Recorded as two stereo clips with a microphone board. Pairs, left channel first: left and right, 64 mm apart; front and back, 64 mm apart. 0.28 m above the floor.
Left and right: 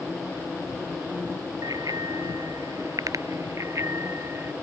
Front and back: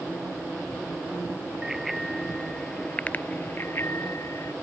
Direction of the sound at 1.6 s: 100° right.